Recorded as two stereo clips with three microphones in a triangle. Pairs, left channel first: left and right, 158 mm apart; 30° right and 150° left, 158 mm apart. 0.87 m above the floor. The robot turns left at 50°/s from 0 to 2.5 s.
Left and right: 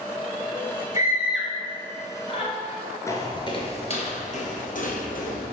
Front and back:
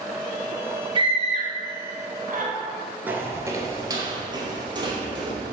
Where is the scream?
155° right, 1.3 m; by 2.5 s 130° left, 1.3 m.